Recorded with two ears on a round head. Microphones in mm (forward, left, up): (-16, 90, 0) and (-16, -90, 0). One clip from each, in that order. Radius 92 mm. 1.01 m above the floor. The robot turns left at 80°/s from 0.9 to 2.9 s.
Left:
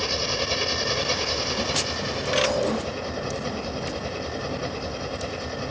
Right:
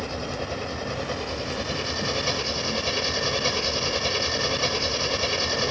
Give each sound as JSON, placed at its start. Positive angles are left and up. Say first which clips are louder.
{"t": 0.0, "sound": "an engine running", "louder": "left 6 dB", "azimuth_deg": 80}